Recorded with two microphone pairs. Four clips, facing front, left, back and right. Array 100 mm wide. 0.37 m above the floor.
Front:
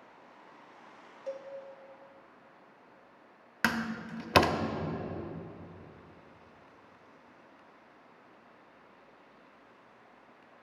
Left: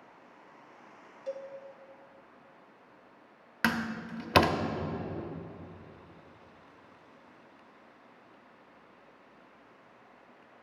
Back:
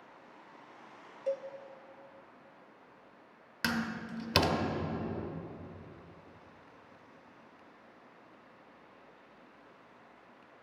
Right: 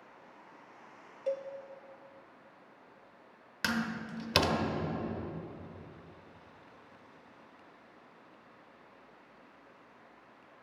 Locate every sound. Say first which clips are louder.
1.3 s a cowbell: right 4 dB, back 6 dB; 125° right, 0.6 m
3.6 s a door slam: left 3 dB, front 2 dB; 45° left, 0.5 m